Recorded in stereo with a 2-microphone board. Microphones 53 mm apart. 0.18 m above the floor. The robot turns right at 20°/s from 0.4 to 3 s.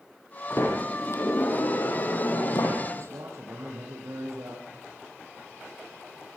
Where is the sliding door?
55° left, 5.5 m; by 2.8 s 100° left, 5.5 m.